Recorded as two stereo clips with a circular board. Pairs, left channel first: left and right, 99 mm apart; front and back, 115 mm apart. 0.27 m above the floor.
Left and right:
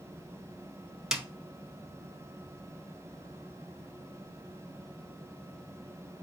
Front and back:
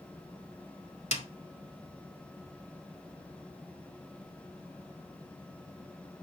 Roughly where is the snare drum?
Ahead.